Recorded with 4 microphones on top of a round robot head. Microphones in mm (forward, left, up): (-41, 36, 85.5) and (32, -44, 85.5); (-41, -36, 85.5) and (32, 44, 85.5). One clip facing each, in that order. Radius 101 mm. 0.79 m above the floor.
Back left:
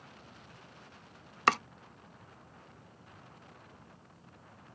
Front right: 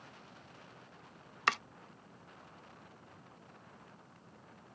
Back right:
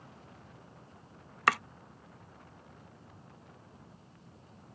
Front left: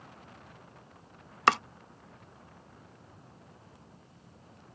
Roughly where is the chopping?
Left.